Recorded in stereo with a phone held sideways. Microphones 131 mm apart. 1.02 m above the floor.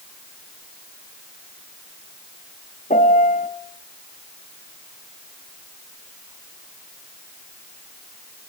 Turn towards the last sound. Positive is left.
turn(degrees=85)